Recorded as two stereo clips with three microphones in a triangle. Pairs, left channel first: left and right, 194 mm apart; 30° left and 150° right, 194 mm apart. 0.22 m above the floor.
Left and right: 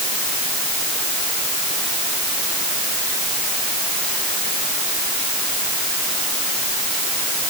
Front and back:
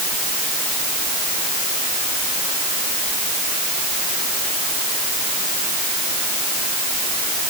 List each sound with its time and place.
Only background noise.